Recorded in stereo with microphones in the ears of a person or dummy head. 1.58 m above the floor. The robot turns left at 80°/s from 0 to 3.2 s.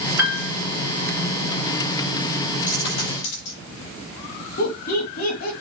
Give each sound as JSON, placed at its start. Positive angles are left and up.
{"t": 0.2, "sound": "a piano", "side_deg": -20, "distance_m": 7.5}
{"t": 2.7, "sound": "a dropped coin", "side_deg": 35, "distance_m": 8.0}
{"t": 4.6, "sound": "laughter", "side_deg": 55, "distance_m": 3.0}